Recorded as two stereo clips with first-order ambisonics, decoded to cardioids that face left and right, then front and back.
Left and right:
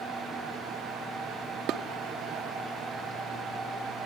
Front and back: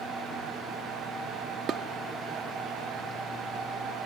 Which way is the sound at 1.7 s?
125° right.